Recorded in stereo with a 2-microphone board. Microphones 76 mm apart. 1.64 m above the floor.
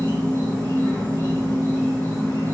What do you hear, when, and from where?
0.0 s an insect: 30° left (ahead or behind), 1.8 m